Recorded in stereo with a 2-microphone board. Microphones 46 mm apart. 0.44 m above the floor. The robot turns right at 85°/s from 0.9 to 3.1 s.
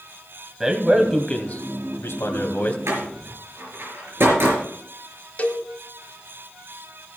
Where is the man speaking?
10° right, 2 m; by 2.8 s 150° left, 2 m.